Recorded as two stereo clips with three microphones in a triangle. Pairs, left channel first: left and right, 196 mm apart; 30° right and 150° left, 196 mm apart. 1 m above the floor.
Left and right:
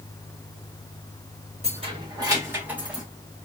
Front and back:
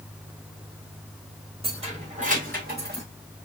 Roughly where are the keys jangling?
Behind right.